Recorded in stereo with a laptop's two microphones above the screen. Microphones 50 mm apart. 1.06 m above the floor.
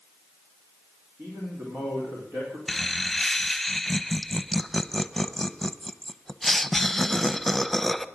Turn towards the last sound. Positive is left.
turn(degrees=5)  # may be behind; listen again after turning